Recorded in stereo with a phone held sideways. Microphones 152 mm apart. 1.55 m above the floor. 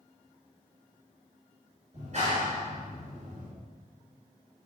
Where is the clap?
55° right (ahead or behind), 5.5 m.